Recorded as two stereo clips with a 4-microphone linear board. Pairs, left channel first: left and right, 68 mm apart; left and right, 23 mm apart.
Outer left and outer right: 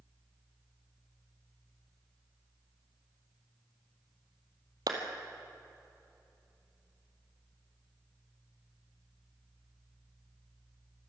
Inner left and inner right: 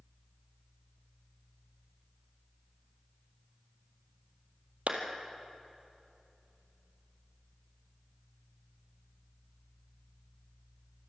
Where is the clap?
65° right (ahead or behind), 2 m.